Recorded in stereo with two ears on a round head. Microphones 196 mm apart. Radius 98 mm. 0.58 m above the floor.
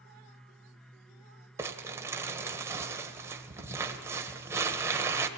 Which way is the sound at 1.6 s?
10° right (ahead or behind).